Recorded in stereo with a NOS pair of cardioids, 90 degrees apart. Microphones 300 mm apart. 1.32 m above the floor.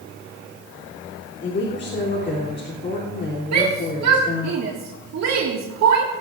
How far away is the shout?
About 2 m.